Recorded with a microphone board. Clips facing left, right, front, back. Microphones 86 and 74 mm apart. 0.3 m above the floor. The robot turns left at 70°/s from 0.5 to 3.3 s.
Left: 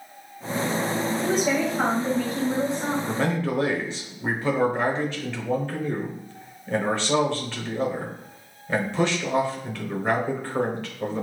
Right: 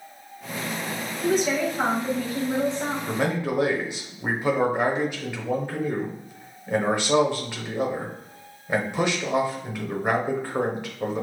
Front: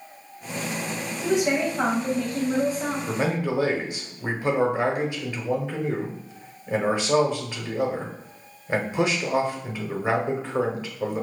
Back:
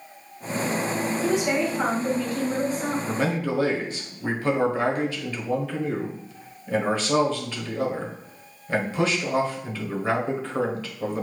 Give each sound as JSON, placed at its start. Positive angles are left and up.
{"t": 1.2, "sound": "a woman speaking", "azimuth_deg": 60, "distance_m": 1.3}
{"t": 3.1, "sound": "a man speaking", "azimuth_deg": -25, "distance_m": 0.9}